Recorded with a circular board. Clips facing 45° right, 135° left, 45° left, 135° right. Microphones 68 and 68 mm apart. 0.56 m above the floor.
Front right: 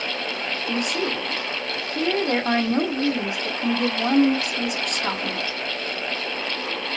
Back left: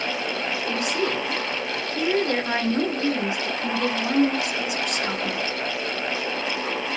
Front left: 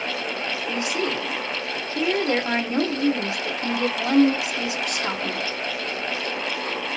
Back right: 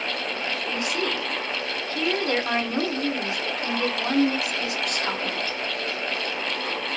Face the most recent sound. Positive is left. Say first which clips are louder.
# even, front left 2 dB
turn(degrees=-25)